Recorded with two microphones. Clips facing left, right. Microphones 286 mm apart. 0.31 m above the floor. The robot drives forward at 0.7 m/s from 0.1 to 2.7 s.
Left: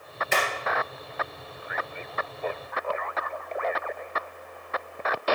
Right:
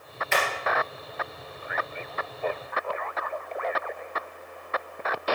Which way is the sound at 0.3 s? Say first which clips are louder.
Even; 40° left (ahead or behind).